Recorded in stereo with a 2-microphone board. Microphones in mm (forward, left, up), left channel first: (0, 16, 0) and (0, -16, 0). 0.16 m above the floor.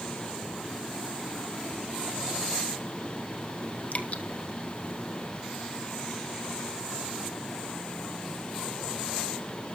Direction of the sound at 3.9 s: 60° left (ahead or behind).